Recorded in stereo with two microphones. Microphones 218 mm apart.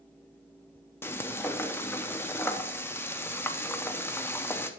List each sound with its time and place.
1.0 s frying: 10° left (ahead or behind), 0.8 m